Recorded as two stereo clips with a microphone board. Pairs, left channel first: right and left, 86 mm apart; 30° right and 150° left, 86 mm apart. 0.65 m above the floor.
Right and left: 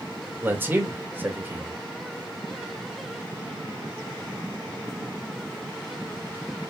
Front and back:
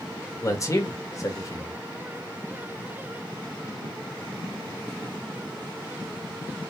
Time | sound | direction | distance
0.4 | a man speaking | 20° left | 1.7 m